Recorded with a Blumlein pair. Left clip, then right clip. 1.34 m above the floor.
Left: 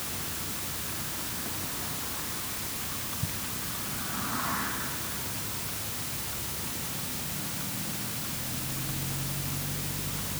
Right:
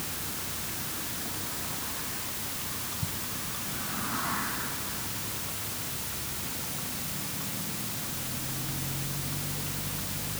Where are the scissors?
I don't hear scissors.